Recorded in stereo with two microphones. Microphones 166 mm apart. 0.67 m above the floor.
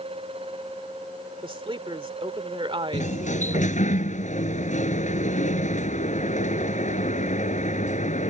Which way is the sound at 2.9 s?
50° left (ahead or behind).